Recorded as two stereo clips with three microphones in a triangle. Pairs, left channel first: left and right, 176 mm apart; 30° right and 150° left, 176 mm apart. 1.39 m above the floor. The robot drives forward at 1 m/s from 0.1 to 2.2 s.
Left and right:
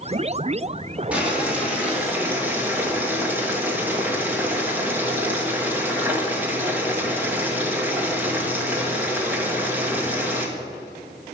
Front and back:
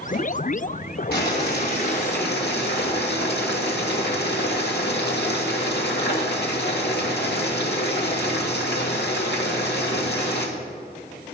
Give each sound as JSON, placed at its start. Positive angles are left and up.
{"t": 1.1, "sound": "boiling", "azimuth_deg": -5, "distance_m": 3.5}